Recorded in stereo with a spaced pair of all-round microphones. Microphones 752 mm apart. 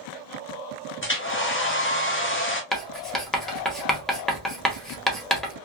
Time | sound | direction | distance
1.0 | a hair dryer | 15° left (ahead or behind) | 0.8 m
2.7 | writing | centre (ahead or behind) | 1.0 m